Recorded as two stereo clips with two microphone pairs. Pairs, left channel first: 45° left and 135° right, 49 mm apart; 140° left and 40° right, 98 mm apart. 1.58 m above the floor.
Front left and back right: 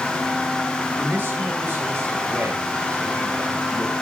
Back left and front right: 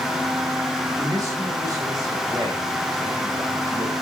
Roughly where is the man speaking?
Right.